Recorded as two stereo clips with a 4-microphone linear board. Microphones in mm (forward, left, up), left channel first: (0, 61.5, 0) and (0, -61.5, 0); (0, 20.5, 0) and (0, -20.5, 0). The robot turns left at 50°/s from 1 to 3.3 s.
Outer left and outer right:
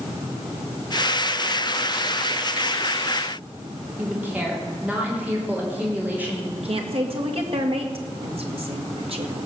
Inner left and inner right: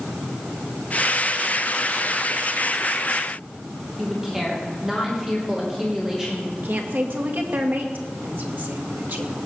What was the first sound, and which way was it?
A woman speaking, 15° right (ahead or behind).